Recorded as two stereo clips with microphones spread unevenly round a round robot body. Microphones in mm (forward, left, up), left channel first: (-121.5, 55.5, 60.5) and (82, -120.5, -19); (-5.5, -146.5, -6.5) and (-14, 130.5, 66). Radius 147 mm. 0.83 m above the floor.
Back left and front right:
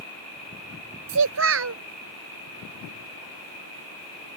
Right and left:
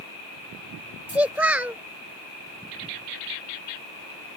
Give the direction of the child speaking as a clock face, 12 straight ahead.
12 o'clock.